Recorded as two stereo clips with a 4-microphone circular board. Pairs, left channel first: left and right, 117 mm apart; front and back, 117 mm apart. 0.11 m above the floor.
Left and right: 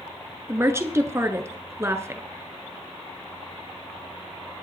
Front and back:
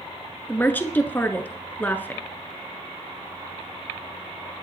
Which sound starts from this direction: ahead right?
A woman speaking, at 0.5 s.